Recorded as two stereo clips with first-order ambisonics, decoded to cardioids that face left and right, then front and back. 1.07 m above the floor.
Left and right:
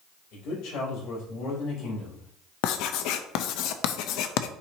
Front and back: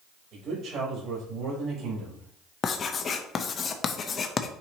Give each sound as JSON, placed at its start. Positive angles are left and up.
{"t": 0.3, "sound": "a man speaking", "azimuth_deg": 125, "distance_m": 4.0}
{"t": 2.6, "sound": "writing", "azimuth_deg": 65, "distance_m": 0.7}